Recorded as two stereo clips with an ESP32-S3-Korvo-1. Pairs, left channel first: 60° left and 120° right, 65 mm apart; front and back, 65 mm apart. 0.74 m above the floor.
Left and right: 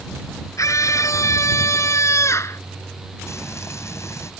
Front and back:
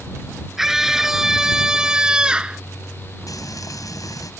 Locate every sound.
0.6 s a scream: 95° left; by 2.6 s 105° left
3.3 s frying: 20° left